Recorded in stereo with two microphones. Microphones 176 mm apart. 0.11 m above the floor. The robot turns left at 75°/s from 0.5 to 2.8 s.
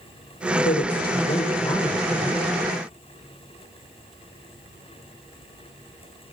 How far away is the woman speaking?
About 4 m.